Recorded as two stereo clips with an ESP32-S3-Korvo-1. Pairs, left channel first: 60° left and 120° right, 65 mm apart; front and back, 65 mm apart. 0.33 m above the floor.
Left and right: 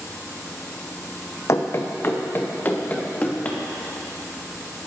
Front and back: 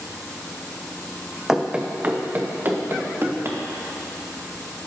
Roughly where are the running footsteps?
Left.